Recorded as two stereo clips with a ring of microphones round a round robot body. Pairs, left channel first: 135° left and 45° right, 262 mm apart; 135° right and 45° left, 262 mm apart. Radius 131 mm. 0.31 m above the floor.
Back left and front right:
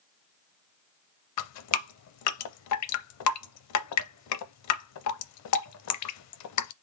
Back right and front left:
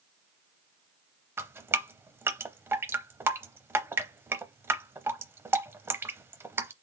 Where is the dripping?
125° left, 0.6 m.